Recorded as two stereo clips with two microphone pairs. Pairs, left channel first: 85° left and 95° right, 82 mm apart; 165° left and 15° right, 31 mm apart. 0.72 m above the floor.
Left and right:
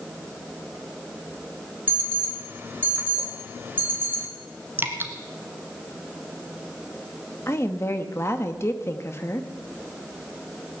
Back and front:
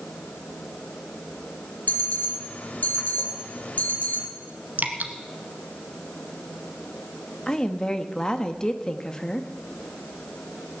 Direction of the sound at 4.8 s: 35° right.